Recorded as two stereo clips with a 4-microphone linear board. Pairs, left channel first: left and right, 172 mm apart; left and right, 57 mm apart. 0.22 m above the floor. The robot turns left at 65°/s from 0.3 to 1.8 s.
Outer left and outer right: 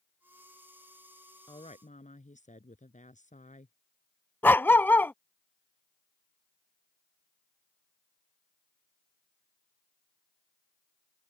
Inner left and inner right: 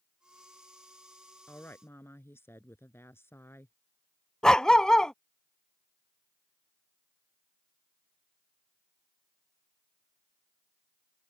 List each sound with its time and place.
1.5 s a woman speaking: 25° left (ahead or behind); by 3.7 s 45° left (ahead or behind)
4.4 s a dog barking: 10° left (ahead or behind)